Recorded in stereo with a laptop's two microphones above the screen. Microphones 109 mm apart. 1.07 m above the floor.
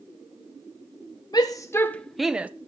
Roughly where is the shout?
Left.